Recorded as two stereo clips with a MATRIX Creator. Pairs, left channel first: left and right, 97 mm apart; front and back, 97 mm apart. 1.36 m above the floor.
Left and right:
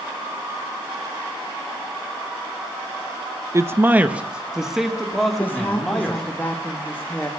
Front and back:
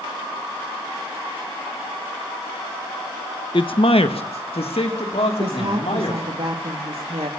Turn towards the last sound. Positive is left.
turn(degrees=160)